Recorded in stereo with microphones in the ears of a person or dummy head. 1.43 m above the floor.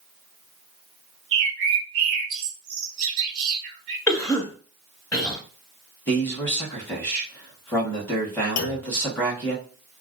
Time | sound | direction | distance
1.3 | a bird | 65° right (ahead or behind) | 0.8 m
4.1 | a cough | 10° left (ahead or behind) | 0.6 m
6.1 | a man speaking | 10° left (ahead or behind) | 0.8 m
8.6 | a clunk | 80° left | 0.6 m